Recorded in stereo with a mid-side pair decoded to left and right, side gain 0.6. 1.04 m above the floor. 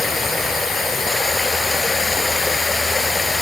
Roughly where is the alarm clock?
I don't hear an alarm clock.